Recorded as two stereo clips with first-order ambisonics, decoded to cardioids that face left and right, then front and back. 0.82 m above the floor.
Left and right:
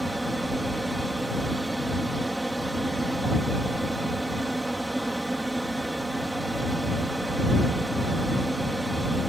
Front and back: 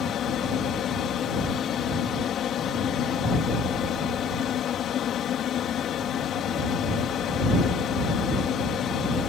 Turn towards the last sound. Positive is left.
turn(degrees=-10)